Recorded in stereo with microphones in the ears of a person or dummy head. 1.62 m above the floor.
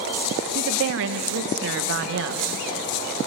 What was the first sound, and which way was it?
A woman speaking, 70° right (ahead or behind).